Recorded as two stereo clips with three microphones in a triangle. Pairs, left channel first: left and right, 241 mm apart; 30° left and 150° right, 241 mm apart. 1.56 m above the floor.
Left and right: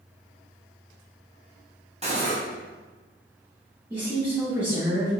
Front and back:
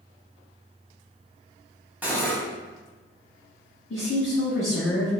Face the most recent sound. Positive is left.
turn(degrees=-10)